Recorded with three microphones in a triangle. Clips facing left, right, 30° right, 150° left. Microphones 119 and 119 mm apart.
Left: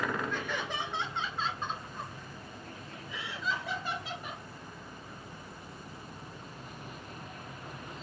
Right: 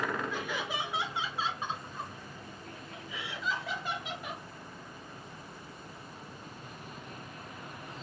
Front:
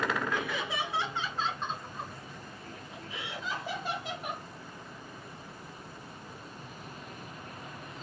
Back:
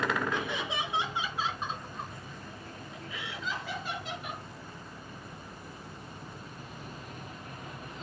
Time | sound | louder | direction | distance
0.3 | laughter | even, even | 165° right | 1.4 m